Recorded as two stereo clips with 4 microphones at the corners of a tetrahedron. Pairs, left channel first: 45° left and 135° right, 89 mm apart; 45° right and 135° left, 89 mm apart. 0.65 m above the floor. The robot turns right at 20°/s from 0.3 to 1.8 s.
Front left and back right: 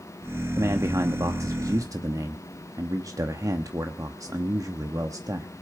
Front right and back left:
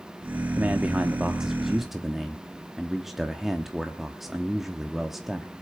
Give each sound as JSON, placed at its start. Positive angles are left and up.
{"t": 0.6, "sound": "a man speaking", "azimuth_deg": -165, "distance_m": 1.0}